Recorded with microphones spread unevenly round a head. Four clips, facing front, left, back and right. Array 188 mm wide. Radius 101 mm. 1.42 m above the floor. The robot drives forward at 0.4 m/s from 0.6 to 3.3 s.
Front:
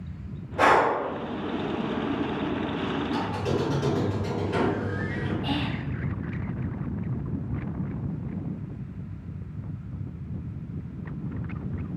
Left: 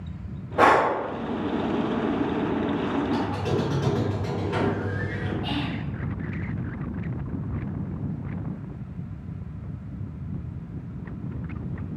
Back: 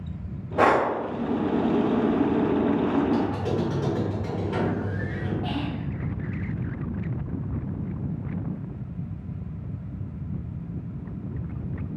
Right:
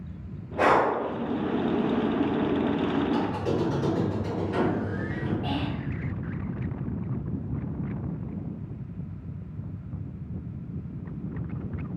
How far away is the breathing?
About 0.7 m.